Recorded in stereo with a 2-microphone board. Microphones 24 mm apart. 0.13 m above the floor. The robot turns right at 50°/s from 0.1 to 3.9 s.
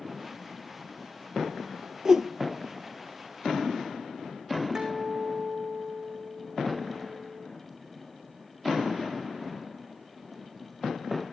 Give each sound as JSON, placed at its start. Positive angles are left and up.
{"t": 2.0, "sound": "a whoosh", "side_deg": -30, "distance_m": 1.1}
{"t": 4.8, "sound": "a guitar", "side_deg": -20, "distance_m": 3.5}